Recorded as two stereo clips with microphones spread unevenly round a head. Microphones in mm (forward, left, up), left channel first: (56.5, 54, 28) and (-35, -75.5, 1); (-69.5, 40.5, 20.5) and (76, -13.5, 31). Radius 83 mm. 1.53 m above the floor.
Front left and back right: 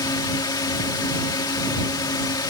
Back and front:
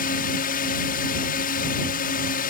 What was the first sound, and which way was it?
A drone, 125° left.